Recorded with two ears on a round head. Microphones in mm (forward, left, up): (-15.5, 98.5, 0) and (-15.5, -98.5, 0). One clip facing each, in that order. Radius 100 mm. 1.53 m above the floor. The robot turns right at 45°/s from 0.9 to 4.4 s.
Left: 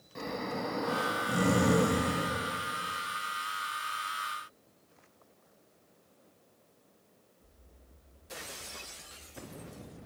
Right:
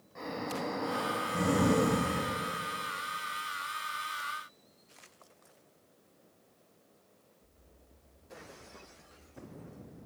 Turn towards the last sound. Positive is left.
turn(degrees=-90)